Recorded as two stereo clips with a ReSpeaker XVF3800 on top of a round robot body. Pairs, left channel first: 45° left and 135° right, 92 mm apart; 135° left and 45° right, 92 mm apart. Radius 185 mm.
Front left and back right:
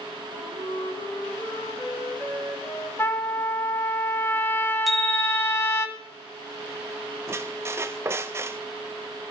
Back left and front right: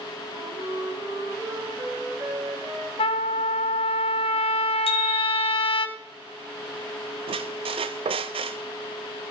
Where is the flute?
10° left, 4 m.